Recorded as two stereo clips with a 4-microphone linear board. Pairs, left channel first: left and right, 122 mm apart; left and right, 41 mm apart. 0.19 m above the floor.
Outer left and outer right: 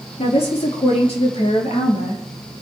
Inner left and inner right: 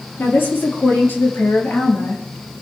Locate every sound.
0.2 s a woman speaking: 60° left (ahead or behind), 5 m